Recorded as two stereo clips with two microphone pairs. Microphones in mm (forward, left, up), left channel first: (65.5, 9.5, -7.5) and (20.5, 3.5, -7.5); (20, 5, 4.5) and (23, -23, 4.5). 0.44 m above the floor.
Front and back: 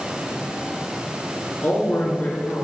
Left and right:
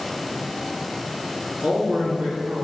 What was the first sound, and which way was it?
A man speaking, 45° right.